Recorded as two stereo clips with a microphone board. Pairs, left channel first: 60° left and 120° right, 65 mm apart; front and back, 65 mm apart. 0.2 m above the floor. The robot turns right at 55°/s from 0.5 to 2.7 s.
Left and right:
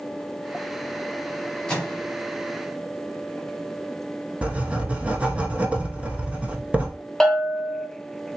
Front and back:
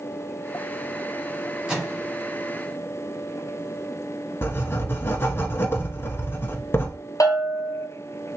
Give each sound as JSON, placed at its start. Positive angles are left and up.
{"t": 1.7, "sound": "a microwave", "azimuth_deg": 115, "distance_m": 1.4}
{"t": 4.4, "sound": "writing", "azimuth_deg": -50, "distance_m": 0.5}
{"t": 7.2, "sound": "a bell", "azimuth_deg": -25, "distance_m": 0.8}